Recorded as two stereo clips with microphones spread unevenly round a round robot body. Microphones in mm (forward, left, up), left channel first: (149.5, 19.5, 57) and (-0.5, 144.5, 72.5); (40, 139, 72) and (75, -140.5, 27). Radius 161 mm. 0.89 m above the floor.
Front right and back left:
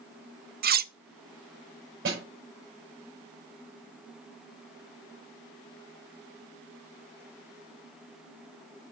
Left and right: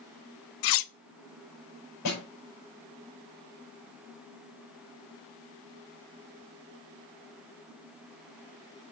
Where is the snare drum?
140° left, 5 m.